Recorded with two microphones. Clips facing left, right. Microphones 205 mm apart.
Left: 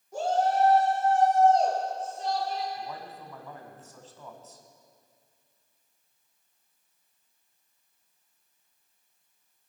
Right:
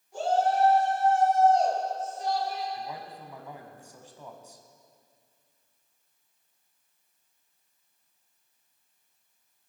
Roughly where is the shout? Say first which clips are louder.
Even; left.